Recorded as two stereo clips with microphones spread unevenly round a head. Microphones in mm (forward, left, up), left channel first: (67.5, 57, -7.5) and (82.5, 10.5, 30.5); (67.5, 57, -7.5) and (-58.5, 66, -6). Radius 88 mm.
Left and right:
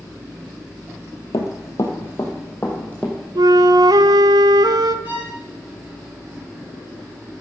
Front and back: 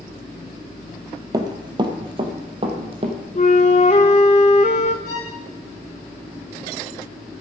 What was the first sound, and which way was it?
Running footsteps, 175° left.